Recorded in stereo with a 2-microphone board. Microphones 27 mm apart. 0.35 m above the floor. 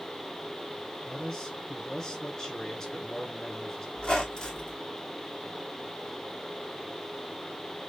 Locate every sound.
1.1 s a man speaking: 25° left (ahead or behind), 2.5 m
4.0 s a squeak: 40° left (ahead or behind), 1.7 m